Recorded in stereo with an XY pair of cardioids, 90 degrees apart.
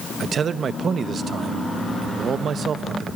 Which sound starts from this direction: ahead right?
A man speaking, at 0.2 s.